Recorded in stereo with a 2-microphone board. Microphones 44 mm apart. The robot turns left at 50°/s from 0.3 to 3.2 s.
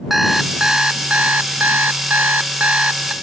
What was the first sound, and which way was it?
An alarm clock, 5° right.